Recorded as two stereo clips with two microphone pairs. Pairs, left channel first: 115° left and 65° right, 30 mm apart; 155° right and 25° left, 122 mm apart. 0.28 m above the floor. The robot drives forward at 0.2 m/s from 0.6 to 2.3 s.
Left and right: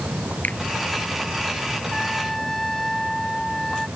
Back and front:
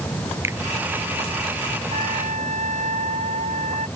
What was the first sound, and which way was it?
A finger snap, 95° left.